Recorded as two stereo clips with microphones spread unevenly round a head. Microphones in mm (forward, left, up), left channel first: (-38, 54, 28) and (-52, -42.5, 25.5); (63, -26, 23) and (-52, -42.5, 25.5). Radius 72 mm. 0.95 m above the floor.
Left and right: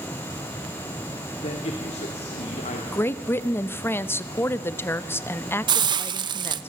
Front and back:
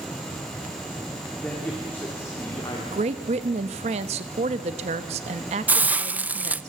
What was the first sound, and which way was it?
A man speaking, 90° left.